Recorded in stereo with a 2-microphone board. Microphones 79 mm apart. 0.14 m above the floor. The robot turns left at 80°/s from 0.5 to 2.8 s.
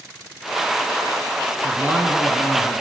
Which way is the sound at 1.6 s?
120° right.